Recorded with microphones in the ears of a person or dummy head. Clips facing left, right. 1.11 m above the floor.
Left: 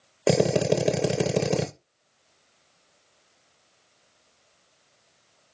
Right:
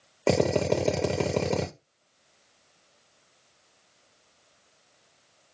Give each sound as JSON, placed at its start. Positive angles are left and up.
{"t": 0.3, "sound": "a drill", "side_deg": 10, "distance_m": 0.6}